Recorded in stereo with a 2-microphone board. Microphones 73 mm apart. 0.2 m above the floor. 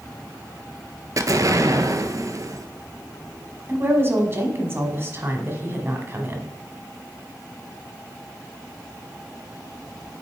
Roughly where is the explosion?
Right.